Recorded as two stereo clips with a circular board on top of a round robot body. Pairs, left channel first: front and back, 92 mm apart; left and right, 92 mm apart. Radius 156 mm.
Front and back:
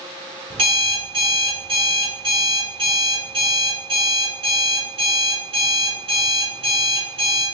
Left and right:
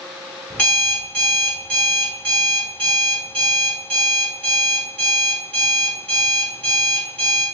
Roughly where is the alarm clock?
Behind.